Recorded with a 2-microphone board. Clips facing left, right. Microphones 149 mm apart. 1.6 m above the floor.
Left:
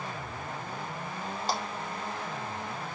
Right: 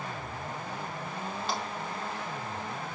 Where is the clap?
35° left (ahead or behind), 2.5 m.